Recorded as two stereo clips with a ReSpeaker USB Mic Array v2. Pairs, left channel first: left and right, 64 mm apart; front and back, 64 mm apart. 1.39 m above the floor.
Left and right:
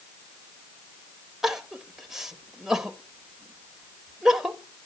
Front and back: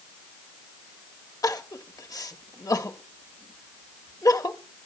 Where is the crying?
5° right, 1.3 m.